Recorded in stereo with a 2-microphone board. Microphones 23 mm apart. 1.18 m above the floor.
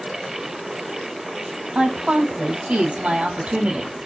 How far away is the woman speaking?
About 3 m.